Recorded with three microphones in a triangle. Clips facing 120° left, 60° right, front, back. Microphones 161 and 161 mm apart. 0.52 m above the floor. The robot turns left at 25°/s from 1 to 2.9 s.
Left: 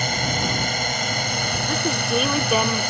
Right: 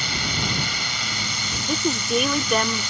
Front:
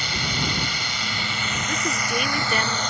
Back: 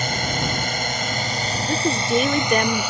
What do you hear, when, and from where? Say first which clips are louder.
0.0 s a drone: left 5 dB, back 4 dB; 150° left; by 2.9 s 100° left
1.7 s a woman speaking: right 2 dB, back 8 dB; 135° right; by 2.9 s 165° right